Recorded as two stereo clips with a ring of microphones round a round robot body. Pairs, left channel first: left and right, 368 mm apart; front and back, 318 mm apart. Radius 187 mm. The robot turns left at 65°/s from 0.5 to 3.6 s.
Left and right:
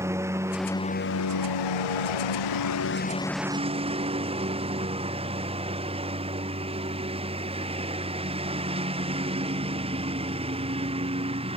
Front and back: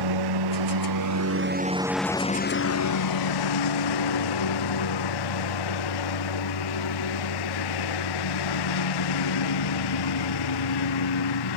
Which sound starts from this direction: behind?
A lawn mower, at 0.0 s.